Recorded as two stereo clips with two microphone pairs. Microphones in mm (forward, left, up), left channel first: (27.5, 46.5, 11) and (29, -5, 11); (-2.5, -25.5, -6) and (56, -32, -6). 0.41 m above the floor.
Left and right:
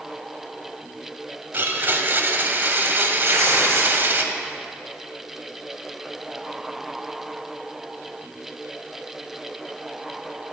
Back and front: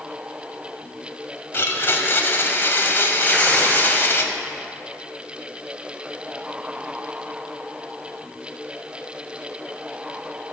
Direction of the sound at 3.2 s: 120° right.